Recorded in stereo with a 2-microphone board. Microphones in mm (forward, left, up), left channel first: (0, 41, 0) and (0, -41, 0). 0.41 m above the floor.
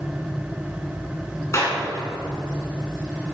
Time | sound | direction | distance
1.5 | a clap | 35° left (ahead or behind) | 3.5 m